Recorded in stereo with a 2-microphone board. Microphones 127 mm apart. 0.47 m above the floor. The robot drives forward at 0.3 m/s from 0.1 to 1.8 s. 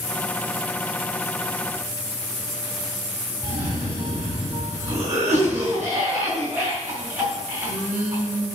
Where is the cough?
20° right (ahead or behind), 3 m.